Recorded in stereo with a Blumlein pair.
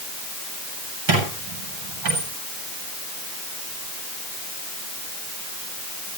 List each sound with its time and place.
1.1 s a squeak: 50° right, 7.5 m